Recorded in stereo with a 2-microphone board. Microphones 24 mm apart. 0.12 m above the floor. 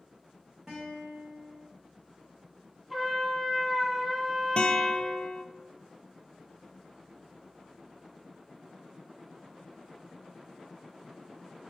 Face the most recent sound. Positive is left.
turn(degrees=50)  # may be behind; listen again after turning